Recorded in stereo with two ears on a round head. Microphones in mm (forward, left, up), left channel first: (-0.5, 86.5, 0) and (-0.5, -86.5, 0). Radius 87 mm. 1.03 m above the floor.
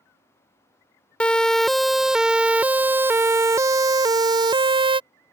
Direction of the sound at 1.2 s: 5° left (ahead or behind).